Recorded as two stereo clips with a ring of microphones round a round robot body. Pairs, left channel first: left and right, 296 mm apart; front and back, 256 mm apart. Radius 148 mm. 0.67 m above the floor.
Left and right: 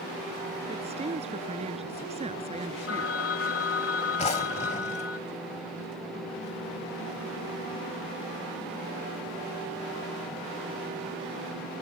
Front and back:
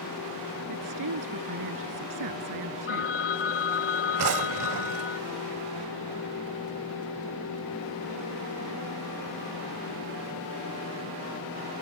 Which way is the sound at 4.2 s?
160° left.